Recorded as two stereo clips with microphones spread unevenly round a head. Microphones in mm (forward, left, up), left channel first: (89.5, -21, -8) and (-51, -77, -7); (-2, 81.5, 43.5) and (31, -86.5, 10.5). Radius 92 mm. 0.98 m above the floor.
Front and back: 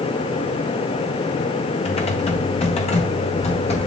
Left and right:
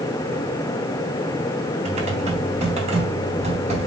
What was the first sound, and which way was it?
Typing on a keyboard, 25° right.